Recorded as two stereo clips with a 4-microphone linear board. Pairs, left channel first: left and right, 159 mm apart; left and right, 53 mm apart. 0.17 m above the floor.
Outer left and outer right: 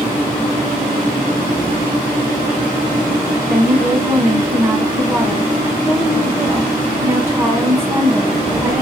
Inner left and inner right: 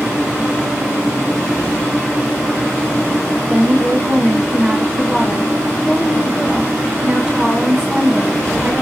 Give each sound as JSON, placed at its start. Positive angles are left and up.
{"t": 3.5, "sound": "a woman speaking", "side_deg": -15, "distance_m": 1.1}